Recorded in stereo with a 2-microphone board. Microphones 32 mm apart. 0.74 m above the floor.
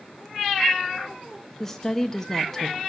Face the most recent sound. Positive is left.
turn(degrees=10)  # may be behind; listen again after turning